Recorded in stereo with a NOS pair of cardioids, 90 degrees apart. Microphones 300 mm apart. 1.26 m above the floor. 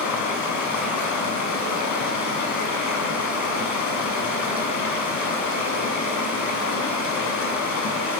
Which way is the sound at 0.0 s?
65° left.